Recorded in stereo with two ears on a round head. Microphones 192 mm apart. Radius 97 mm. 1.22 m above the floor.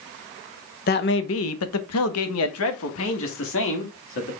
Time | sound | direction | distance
0.9 | a man speaking | 45° left (ahead or behind) | 0.8 m